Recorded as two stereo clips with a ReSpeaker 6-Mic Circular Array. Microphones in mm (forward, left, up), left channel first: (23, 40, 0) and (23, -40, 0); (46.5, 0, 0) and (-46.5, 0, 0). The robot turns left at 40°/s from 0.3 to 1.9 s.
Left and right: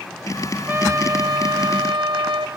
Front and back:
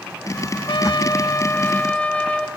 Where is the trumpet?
25° right, 0.9 m; by 2.5 s 75° right, 0.9 m.